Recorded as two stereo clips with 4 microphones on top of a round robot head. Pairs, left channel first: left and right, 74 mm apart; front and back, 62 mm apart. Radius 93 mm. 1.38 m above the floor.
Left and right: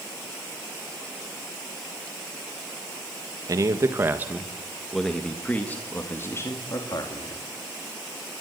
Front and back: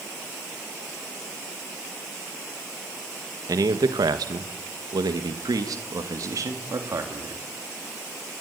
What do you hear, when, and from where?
3.5 s a man speaking: 140° right, 1.7 m; by 7.4 s 140° left, 3 m